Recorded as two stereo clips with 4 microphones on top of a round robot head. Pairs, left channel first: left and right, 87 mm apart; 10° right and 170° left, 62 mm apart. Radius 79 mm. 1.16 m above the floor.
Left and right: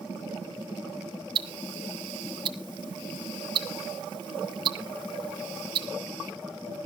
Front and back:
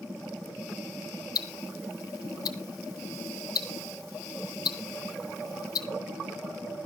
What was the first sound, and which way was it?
Ticking, 45° right.